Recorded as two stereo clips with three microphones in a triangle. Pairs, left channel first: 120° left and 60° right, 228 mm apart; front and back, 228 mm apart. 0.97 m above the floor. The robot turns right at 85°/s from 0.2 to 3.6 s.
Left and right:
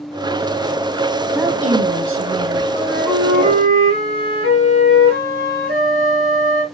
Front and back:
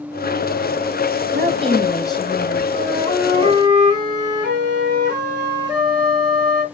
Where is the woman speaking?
140° right, 0.7 m; by 2.6 s 30° right, 0.7 m.